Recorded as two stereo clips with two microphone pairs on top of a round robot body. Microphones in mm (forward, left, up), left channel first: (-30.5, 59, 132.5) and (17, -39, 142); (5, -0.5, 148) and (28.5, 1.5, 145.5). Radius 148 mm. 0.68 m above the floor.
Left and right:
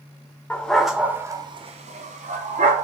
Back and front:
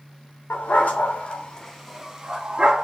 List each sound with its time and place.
0.5 s a dog barking: 165° right, 0.8 m; by 2.9 s 55° right, 1.0 m